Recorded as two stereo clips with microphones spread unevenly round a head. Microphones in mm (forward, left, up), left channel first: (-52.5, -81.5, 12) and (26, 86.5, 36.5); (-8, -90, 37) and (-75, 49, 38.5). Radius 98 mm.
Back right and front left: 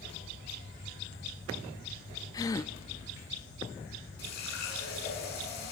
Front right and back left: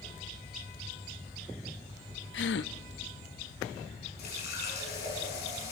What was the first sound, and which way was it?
A gasp, 40° right.